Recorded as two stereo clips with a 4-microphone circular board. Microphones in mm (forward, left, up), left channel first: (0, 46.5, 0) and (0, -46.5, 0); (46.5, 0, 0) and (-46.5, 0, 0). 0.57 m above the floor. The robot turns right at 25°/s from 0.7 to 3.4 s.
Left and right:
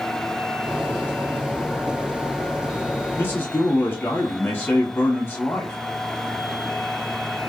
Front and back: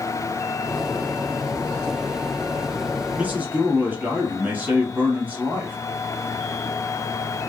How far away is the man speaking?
About 1.3 m.